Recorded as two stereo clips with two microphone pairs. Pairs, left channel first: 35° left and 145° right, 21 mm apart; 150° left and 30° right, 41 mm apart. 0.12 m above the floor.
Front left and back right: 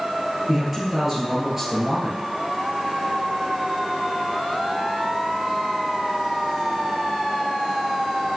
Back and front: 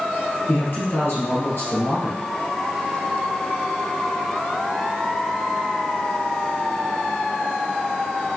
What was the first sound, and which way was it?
A man speaking, 150° left.